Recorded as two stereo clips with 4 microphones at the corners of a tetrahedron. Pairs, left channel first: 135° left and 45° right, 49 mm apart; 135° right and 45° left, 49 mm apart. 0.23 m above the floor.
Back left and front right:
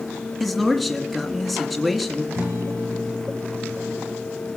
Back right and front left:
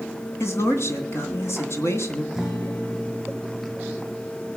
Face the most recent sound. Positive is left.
turn(degrees=-45)